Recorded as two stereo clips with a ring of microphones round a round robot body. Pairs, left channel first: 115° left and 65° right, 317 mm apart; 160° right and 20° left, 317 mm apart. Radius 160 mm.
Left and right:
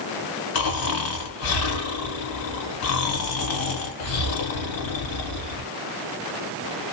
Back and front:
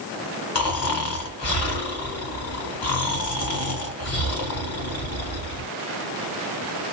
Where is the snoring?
155° left, 1.4 m.